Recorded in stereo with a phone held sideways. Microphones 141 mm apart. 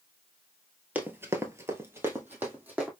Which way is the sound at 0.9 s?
15° right (ahead or behind).